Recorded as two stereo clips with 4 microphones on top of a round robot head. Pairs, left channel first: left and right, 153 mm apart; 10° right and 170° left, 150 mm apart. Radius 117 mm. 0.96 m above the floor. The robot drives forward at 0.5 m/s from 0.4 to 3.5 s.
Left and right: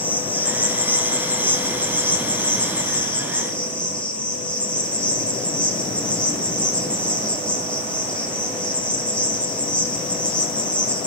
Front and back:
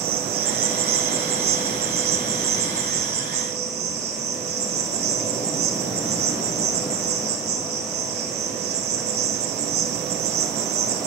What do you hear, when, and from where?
0.0 s an insect: 170° left, 3 m